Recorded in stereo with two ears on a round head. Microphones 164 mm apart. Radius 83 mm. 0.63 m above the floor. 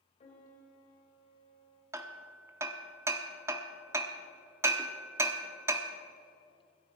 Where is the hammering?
15° right (ahead or behind), 0.9 m.